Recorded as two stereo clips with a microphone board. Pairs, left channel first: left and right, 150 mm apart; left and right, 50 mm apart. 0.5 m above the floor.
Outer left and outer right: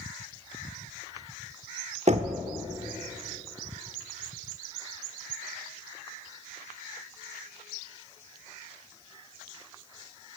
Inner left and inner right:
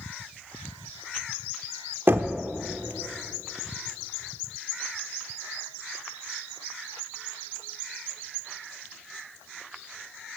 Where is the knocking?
50° right (ahead or behind), 0.5 m.